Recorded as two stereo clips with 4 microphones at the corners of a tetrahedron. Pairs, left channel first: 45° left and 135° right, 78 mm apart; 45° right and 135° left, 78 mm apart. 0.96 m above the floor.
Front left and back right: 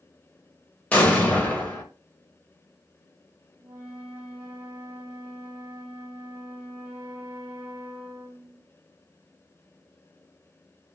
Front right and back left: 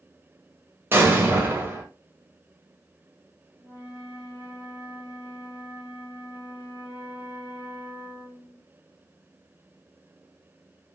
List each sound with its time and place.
0.9 s an explosion: 100° left, 0.8 m
3.6 s a flute: 170° left, 1.1 m